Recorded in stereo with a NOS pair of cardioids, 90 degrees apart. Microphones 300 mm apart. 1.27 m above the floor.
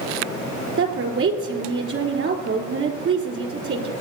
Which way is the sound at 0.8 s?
50° right.